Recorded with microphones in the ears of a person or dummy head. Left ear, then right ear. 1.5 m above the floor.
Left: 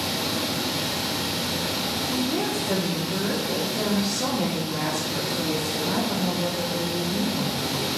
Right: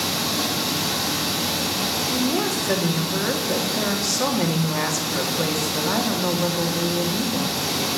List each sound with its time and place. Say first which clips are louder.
0.0 s running water: right 3 dB; 80° right, 4.5 m
2.1 s a woman speaking: right 3 dB; 60° right (ahead or behind), 2.5 m